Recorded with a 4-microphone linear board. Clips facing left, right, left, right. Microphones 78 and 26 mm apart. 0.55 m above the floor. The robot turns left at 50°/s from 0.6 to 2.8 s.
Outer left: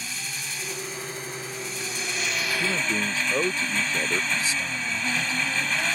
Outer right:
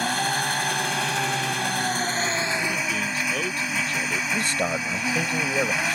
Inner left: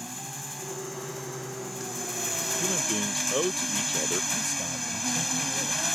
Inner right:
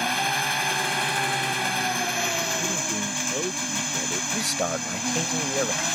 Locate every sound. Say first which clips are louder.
0.0 s an engine running: outer right 13 dB, inner right 15 dB; 60° right; by 6.0 s 170° right
2.6 s a man speaking: even, inner right 1 dB; 30° left (ahead or behind); by 4.2 s 20° left (ahead or behind)
4.3 s a man speaking: outer right 4 dB, inner right 5 dB; 55° right (ahead or behind)